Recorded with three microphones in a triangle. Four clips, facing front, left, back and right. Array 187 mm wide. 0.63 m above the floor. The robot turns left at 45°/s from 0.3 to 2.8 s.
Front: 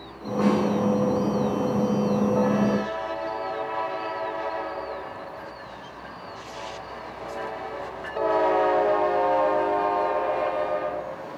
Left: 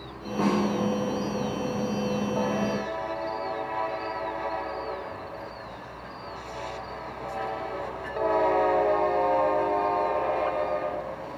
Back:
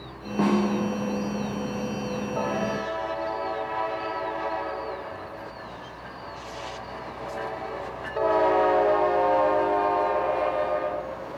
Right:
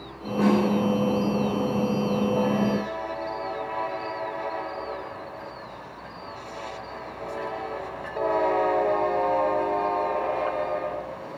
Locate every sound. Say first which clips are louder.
0.4 s a snare drum: right 4 dB, front 1 dB; 175° left, 4.5 m; by 0.6 s 165° left, 4.5 m